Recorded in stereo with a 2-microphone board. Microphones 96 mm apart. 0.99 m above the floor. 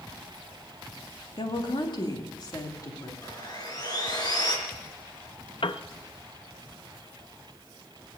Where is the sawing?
45° left (ahead or behind), 4 m.